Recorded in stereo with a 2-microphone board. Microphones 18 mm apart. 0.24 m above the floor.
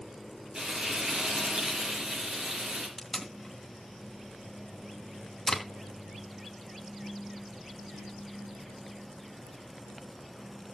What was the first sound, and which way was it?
Frying, 55° right (ahead or behind).